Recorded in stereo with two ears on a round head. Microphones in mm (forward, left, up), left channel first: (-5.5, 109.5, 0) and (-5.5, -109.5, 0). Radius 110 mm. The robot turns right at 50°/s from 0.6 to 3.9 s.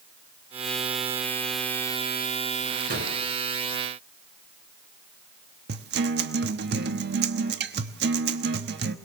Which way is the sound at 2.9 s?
40° right (ahead or behind).